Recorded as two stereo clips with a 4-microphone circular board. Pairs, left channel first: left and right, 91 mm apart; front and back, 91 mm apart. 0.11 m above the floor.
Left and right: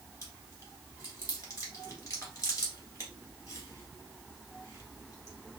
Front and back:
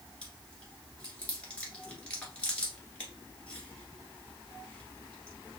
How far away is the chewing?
About 1.4 m.